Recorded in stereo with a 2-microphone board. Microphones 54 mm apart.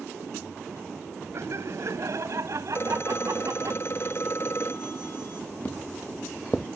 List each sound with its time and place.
1.3 s laughter: 60° right (ahead or behind); by 3.7 s 75° right (ahead or behind)
2.7 s a phone ringing: 45° left (ahead or behind)
5.7 s footsteps: 25° left (ahead or behind); by 6.7 s 10° left (ahead or behind)